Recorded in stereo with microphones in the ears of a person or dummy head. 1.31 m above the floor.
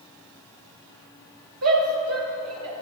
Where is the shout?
85° right, 5 m.